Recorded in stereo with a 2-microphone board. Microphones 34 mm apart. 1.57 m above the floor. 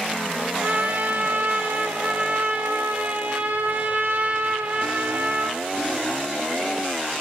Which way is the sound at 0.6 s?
55° right (ahead or behind).